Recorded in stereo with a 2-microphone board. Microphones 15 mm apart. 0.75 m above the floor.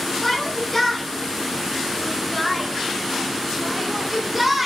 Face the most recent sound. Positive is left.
turn(degrees=-10)  # may be behind; listen again after turning